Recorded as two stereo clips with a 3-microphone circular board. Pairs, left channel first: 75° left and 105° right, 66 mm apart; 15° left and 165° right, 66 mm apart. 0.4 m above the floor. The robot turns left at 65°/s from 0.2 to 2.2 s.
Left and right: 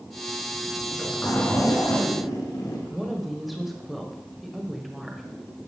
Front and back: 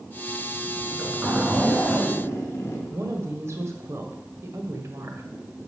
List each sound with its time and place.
0.8 s a zipper: 155° left, 4 m; by 2.8 s 65° left, 4 m
2.9 s a woman speaking: 165° left, 1.4 m